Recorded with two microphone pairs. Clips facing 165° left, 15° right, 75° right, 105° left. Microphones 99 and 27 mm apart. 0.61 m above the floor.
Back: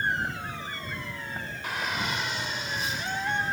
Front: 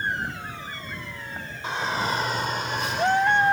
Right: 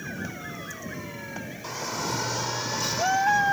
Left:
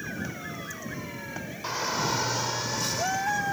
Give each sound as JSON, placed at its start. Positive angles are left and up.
{"t": 1.6, "sound": "a shout", "azimuth_deg": 50}